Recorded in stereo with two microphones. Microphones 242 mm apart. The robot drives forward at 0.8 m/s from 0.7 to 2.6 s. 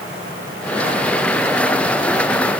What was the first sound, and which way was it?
Only background noise.